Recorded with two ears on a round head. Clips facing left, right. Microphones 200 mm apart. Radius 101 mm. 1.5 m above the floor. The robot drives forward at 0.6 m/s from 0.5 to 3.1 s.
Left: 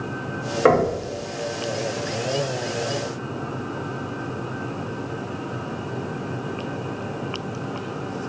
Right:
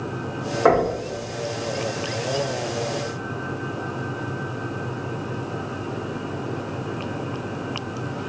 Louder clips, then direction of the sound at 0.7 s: Left 1 dB; 30° left (ahead or behind).